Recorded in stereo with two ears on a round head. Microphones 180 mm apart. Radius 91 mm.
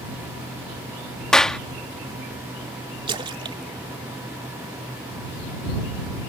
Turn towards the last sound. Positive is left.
turn(degrees=-25)  # may be behind; listen again after turning